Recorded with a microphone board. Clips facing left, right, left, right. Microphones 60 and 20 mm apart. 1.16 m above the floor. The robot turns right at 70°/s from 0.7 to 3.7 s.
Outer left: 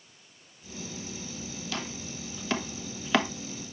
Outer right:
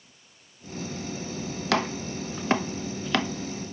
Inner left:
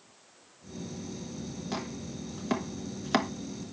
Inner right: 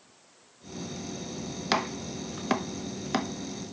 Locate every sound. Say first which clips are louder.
1.7 s chopping: outer right 13 dB, inner right 10 dB; 80° right, 1.0 m; by 3.3 s 20° left (ahead or behind), 1.0 m